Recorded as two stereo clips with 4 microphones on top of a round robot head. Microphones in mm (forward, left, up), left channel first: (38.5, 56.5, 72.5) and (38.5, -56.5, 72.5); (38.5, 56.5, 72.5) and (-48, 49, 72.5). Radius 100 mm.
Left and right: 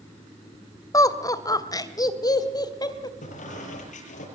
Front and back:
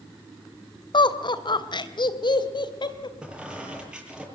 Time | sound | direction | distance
0.9 | laughter | 30° left | 2.5 m
3.2 | a squeak | 105° left | 8 m